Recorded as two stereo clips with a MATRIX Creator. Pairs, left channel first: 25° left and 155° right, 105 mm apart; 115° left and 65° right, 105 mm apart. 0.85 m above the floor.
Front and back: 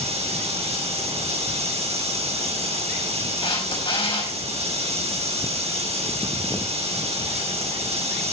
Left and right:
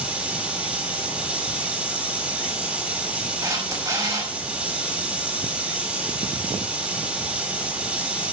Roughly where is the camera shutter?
Ahead.